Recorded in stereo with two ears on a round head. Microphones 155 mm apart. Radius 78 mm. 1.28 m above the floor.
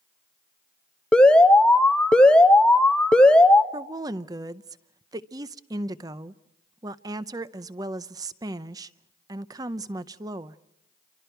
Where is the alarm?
5° left (ahead or behind), 0.9 m.